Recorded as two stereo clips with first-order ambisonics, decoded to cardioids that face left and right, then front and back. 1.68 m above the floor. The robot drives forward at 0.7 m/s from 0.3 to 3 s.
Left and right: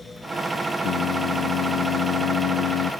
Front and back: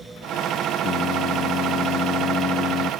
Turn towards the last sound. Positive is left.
turn(degrees=55)